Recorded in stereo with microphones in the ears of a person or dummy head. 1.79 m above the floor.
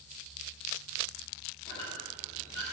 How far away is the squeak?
About 3 m.